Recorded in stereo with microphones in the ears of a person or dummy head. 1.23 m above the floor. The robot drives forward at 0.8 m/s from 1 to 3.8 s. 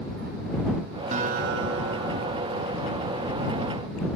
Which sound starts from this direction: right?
A guitar, at 1.1 s.